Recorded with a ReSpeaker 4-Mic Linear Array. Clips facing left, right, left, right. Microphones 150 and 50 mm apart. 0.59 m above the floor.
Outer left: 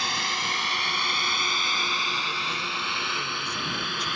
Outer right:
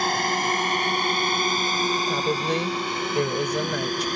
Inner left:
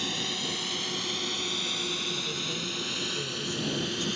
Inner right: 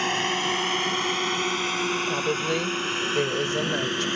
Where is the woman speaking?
70° right (ahead or behind).